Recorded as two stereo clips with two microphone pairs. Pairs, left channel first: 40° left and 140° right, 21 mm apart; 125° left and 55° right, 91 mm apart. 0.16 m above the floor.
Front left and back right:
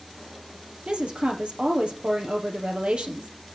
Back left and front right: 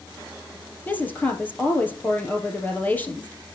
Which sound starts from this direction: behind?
A woman speaking, at 0.9 s.